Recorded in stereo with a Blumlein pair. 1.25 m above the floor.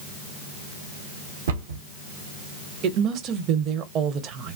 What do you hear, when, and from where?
1.5 s a cupboard door: 60° right, 0.7 m
2.8 s a woman speaking: 35° right, 0.6 m